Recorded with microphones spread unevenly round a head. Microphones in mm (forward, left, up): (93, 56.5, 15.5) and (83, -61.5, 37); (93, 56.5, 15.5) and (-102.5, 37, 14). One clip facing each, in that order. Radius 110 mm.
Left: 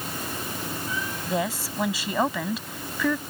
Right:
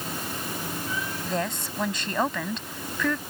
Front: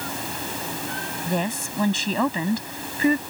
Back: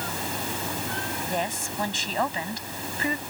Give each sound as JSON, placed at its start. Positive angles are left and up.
{"t": 1.3, "sound": "a woman speaking", "azimuth_deg": 0}